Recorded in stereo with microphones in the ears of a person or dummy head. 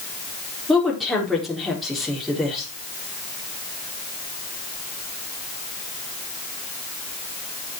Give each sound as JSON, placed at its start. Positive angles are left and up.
{"t": 0.7, "sound": "a woman speaking", "side_deg": 5, "distance_m": 3.5}